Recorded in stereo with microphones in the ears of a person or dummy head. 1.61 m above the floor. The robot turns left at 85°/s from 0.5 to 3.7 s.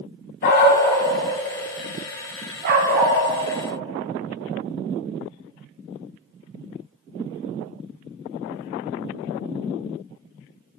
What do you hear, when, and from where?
0.4 s a dog barking: 60° left (ahead or behind), 2 m; by 3.2 s 25° right (ahead or behind), 2 m